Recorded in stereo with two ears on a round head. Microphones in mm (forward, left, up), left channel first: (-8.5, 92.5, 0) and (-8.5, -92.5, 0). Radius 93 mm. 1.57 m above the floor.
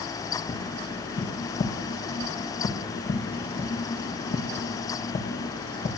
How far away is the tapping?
About 2 m.